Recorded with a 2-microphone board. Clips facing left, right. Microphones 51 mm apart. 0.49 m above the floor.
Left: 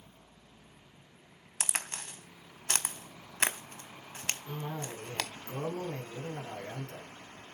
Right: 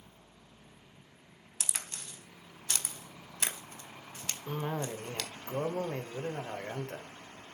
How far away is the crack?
About 1.3 m.